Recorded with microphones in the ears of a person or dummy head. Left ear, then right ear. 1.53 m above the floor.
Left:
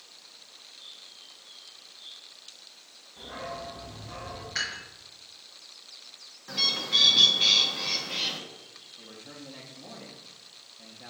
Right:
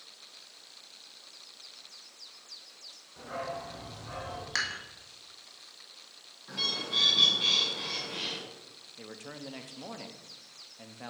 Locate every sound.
3.2 s a dog barking: 65° right (ahead or behind), 2.5 m; by 4.5 s 75° right (ahead or behind), 4 m
4.5 s dishes clattering: 65° right (ahead or behind), 1.9 m
6.5 s a bird: 25° left (ahead or behind), 1.1 m
9.0 s a man speaking: 55° right (ahead or behind), 0.7 m